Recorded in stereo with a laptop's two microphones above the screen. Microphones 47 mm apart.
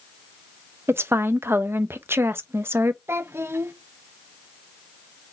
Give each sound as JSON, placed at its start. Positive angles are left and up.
{"t": 0.9, "sound": "a woman speaking", "side_deg": -60, "distance_m": 0.5}
{"t": 3.1, "sound": "a child speaking", "side_deg": -65, "distance_m": 0.5}